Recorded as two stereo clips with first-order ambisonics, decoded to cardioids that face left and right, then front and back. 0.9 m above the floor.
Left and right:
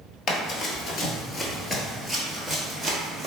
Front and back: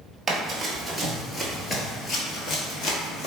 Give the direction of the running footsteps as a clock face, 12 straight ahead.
8 o'clock.